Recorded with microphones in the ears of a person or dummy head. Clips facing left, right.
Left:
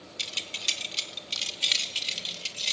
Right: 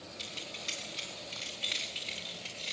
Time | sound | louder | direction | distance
0.2 | keys jangling | even | 40° left (ahead or behind) | 4 m